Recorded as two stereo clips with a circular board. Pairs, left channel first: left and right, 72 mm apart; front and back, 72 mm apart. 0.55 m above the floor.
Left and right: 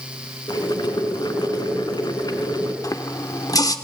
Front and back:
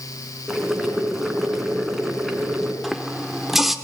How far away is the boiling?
About 2.5 m.